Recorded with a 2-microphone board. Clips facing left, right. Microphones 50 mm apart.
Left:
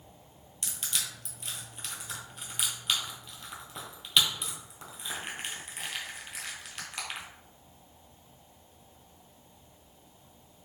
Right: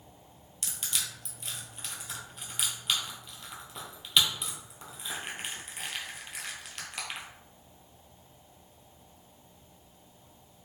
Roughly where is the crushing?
Centre.